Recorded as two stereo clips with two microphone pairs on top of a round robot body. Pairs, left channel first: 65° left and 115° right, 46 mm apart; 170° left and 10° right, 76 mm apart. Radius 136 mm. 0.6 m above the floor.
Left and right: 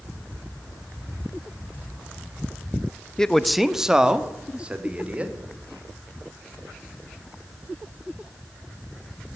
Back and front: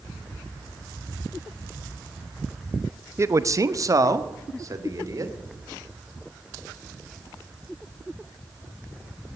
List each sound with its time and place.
3.2 s a man speaking: 15° right, 0.8 m; by 5.3 s 55° right, 2.5 m